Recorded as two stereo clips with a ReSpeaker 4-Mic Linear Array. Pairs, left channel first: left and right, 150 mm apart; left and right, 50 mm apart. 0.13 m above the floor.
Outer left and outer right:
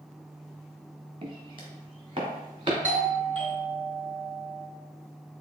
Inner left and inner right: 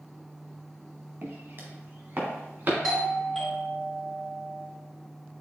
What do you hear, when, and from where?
1.2 s footsteps: 40° right (ahead or behind), 1.8 m; by 2.7 s 35° right (ahead or behind), 3.5 m
2.8 s a doorbell: 10° left (ahead or behind), 1.9 m